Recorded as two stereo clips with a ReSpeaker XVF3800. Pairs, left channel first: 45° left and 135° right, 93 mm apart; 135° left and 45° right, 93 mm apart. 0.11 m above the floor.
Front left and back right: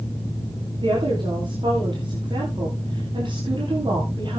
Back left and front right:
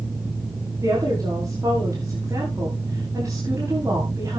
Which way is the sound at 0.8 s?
105° right.